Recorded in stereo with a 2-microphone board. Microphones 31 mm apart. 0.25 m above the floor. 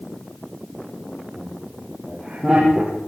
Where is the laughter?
5° right (ahead or behind), 8 m; by 3.0 s 15° right (ahead or behind), 9 m.